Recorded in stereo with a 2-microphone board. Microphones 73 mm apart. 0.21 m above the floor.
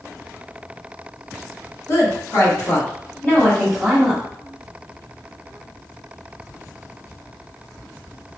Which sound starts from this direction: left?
A woman speaking, at 1.9 s.